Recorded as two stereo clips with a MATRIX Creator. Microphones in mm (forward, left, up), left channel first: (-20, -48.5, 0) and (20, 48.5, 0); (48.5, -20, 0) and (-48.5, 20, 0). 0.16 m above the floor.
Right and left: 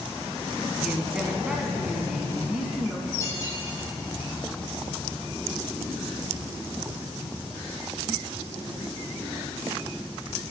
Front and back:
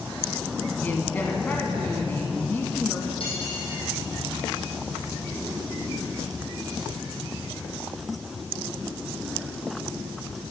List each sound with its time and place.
0.8 s a man speaking: straight ahead, 1.2 m
3.2 s cutlery clinking: 50° right, 4 m